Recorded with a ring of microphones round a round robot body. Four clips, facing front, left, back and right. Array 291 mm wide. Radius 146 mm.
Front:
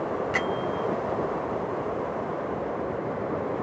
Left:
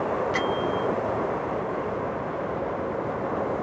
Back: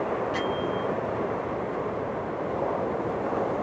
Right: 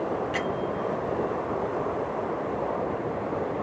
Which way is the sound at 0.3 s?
20° left.